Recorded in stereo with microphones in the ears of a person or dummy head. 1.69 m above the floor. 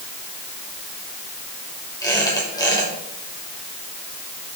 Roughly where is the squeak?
Centre.